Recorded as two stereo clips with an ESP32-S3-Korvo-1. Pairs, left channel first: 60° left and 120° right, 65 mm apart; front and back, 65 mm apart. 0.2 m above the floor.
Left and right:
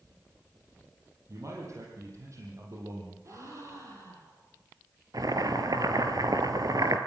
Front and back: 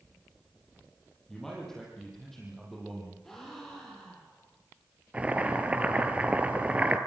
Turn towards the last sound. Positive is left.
turn(degrees=-110)